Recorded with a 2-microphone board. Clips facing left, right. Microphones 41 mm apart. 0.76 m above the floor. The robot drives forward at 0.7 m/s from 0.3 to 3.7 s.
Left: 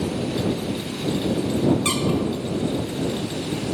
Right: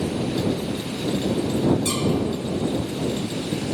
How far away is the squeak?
About 0.8 m.